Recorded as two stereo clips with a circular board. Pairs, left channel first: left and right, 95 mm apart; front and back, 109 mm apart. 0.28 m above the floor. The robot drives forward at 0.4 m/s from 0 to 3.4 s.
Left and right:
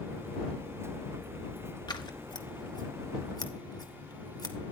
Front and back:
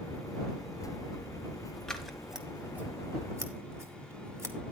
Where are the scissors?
85° left, 1.1 m; by 4.7 s 120° left, 1.2 m.